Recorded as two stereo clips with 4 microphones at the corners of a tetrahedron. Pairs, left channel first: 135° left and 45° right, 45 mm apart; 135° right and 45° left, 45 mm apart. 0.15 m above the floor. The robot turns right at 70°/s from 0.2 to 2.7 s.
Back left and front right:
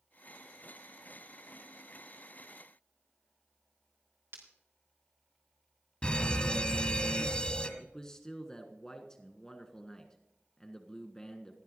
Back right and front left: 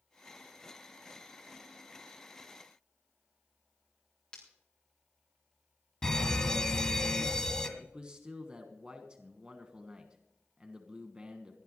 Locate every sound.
4.3 s breaking glass: 65° right, 4 m
6.0 s a fire alarm: 165° left, 2 m
7.8 s a man speaking: 80° left, 1.4 m